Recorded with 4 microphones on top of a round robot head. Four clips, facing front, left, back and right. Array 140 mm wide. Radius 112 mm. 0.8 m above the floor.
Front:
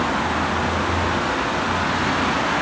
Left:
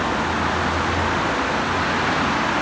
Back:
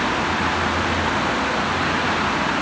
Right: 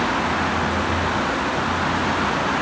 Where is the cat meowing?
No cat meowing in this recording.